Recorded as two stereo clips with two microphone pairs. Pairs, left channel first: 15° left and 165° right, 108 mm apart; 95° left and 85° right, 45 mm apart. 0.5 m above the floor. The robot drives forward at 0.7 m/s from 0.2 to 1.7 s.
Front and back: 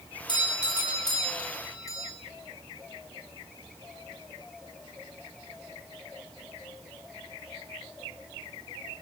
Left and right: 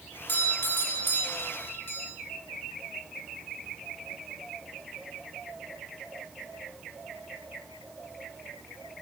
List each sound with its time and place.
0.3 s a doorbell: 60° left, 4.5 m; by 2.1 s 75° left, 4 m